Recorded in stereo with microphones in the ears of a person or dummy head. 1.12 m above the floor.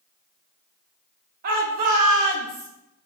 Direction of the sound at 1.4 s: 50° right (ahead or behind).